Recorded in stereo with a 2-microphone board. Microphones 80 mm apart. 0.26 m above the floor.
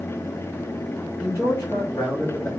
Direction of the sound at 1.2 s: 40° left (ahead or behind).